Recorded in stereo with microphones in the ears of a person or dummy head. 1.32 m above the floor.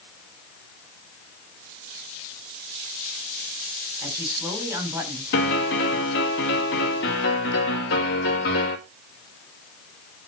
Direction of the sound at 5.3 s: 65° left (ahead or behind).